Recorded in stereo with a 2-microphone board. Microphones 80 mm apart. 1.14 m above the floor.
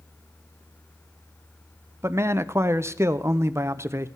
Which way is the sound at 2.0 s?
35° right (ahead or behind).